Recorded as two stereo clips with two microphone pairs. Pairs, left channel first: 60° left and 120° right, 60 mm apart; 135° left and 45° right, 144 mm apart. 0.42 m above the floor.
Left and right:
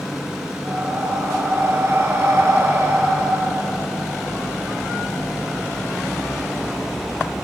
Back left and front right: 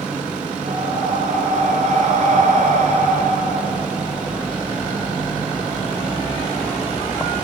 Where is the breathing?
75° right, 4 m.